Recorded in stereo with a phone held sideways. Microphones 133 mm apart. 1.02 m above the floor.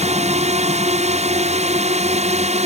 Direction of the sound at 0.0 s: 55° right (ahead or behind).